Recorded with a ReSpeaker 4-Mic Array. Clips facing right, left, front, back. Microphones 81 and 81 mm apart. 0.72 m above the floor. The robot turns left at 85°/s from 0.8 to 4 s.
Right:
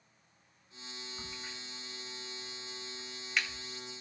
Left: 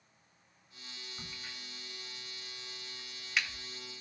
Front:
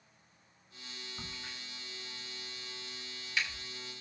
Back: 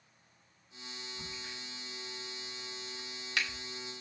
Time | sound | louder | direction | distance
1.2 | a crack | right 1 dB, front 1 dB | straight ahead | 2.5 m